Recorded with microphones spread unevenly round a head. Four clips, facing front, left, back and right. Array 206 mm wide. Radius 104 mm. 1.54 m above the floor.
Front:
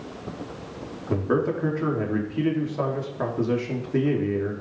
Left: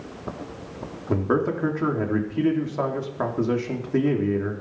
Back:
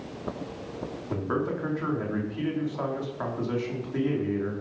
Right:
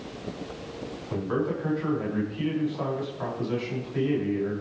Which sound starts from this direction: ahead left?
A man speaking, at 1.1 s.